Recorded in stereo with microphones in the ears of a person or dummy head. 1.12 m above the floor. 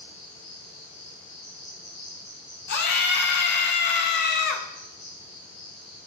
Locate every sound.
0.0 s an insect: 65° left (ahead or behind), 2.5 m
2.7 s a scream: 55° left (ahead or behind), 0.6 m